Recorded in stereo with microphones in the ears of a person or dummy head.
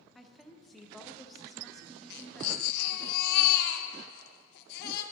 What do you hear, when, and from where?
0.1 s a woman speaking: 10° left (ahead or behind), 0.7 m
2.1 s a baby crying: 60° left (ahead or behind), 0.7 m